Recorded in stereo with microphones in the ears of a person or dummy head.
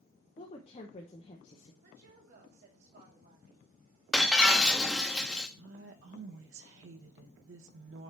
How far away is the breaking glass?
About 1.0 m.